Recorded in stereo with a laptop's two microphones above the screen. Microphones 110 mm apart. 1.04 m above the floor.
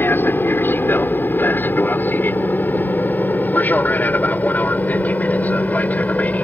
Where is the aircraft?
20° left (ahead or behind); by 6.5 s 15° left (ahead or behind).